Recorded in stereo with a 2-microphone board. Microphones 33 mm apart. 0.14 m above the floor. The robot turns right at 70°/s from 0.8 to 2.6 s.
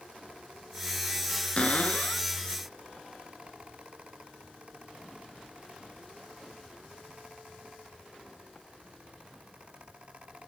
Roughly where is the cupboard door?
Ahead left.